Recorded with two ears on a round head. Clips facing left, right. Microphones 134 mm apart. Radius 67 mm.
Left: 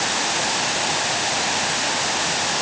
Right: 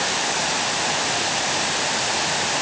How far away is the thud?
I don't hear a thud.